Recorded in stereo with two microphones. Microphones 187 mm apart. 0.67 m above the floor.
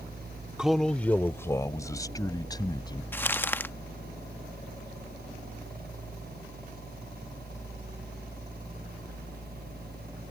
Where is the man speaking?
5° right (ahead or behind); by 3.0 s 20° left (ahead or behind).